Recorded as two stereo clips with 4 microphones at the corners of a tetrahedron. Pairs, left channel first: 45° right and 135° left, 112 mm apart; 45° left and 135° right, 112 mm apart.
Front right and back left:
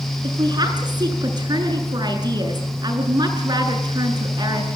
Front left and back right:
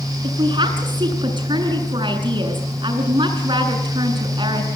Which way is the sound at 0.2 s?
175° right.